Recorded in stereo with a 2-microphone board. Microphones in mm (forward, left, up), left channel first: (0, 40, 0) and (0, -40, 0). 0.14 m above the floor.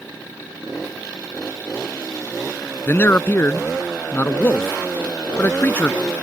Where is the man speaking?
30° left (ahead or behind).